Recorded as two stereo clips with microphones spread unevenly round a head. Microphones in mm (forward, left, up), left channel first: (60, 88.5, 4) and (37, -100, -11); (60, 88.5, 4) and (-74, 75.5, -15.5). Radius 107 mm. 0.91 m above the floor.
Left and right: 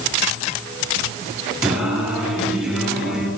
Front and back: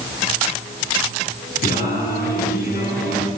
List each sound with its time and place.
1.6 s singing: 10° right, 7.5 m